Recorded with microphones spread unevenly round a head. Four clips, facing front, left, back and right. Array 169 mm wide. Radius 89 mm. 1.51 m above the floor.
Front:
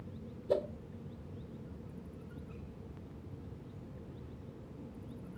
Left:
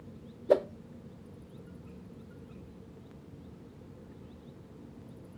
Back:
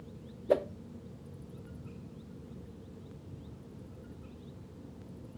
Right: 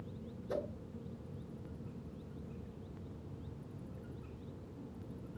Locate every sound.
0.5 s a whoosh: 110° left, 0.6 m